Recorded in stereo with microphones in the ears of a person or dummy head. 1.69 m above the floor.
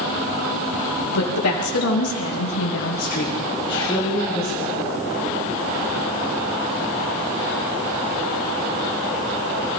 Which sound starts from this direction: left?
A woman speaking, at 1.1 s.